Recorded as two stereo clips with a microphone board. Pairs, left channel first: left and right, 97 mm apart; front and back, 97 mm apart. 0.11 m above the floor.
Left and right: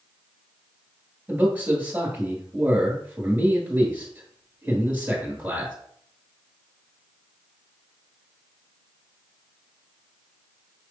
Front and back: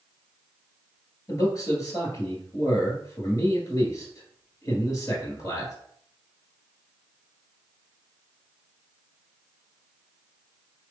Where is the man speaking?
25° right, 2 m.